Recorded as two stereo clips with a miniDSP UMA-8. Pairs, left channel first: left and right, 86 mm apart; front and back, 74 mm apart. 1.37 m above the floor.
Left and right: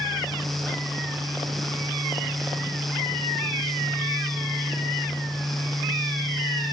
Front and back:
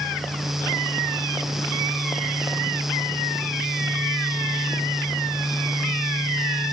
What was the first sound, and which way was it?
Only background noise.